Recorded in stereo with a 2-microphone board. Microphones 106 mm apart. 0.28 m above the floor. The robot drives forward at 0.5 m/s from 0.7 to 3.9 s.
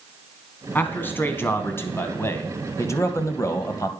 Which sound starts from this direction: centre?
A man speaking, at 0.8 s.